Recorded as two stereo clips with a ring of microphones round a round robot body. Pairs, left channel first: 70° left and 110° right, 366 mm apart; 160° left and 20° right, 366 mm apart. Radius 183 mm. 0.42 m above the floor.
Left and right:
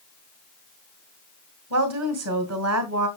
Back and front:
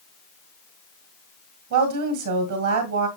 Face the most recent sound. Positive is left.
turn(degrees=-65)